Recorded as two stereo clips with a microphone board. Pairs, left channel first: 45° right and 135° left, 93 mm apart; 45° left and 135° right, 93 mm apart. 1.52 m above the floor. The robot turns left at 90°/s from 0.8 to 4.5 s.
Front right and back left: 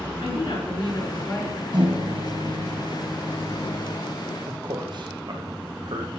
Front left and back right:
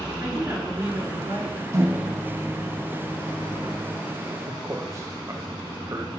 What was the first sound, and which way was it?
A woman speaking, 70° right.